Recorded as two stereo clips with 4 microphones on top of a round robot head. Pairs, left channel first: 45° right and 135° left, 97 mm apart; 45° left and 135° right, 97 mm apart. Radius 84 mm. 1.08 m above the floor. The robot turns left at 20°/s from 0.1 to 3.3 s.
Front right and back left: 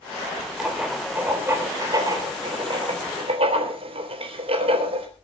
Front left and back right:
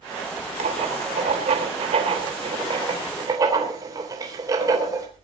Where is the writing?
140° right, 3.5 m; by 5.1 s 165° left, 3.5 m.